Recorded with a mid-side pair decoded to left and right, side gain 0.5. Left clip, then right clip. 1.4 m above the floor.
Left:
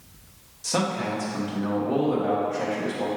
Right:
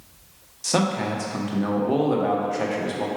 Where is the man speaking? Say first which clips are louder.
Right 2 dB; 35° right, 1.0 m.